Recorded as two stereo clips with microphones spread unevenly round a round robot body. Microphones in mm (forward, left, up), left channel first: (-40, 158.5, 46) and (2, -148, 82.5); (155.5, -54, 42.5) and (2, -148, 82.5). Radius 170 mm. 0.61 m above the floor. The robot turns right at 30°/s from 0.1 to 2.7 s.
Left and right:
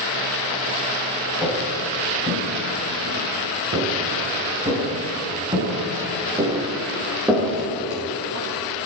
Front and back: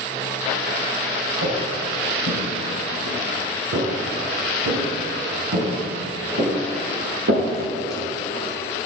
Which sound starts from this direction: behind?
Footsteps, at 1.4 s.